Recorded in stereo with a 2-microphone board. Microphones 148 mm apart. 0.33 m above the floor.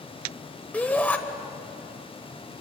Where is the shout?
10° left (ahead or behind), 1.4 m.